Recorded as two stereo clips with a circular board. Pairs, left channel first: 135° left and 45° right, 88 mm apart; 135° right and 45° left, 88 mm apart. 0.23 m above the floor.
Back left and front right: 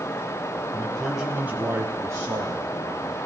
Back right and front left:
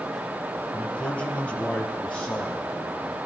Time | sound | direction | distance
0.7 | a man speaking | 175° right | 1.1 m